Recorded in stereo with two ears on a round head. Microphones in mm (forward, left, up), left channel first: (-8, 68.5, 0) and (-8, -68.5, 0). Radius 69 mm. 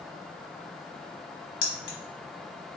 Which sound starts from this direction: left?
Keys jangling, at 1.6 s.